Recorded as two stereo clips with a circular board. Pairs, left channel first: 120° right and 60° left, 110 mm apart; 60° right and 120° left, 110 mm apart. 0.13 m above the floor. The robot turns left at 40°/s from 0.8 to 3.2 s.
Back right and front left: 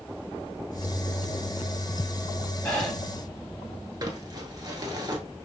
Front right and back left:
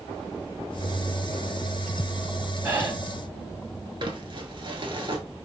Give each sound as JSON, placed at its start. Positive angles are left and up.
{"t": 2.6, "sound": "breathing", "azimuth_deg": 180, "distance_m": 1.9}
{"t": 4.0, "sound": "crumpling", "azimuth_deg": 100, "distance_m": 1.0}